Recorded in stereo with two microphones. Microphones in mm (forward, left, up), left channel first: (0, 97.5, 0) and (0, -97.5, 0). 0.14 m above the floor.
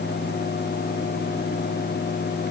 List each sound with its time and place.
Only background noise.